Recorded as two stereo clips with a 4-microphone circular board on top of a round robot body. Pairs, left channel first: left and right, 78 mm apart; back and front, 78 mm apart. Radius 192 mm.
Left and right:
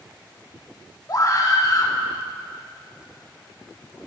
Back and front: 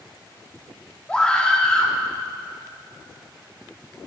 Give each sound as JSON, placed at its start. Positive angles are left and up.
{"t": 1.1, "sound": "a scream", "azimuth_deg": 105, "distance_m": 1.1}